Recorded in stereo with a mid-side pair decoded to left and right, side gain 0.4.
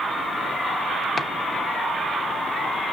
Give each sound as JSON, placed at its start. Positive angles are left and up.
{"t": 1.2, "sound": "chopping", "azimuth_deg": 50, "distance_m": 0.9}